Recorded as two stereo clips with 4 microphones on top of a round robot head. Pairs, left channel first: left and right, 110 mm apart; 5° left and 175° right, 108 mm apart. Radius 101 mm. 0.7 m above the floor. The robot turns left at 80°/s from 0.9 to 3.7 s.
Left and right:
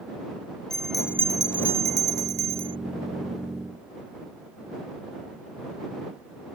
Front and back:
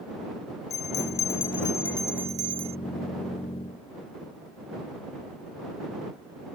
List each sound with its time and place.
0.7 s a bell: 5° left; by 2.8 s 145° right